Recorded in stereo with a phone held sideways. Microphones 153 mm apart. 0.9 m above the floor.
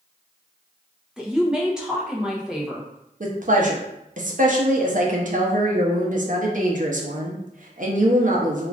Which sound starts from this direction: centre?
A woman speaking, at 1.2 s.